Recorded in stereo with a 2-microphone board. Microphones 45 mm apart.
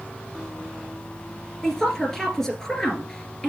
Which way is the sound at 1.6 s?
10° left (ahead or behind).